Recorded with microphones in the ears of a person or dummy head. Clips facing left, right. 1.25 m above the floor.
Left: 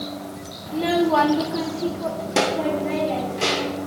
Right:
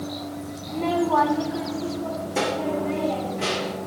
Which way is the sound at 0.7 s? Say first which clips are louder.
Left 3 dB; 10° left (ahead or behind).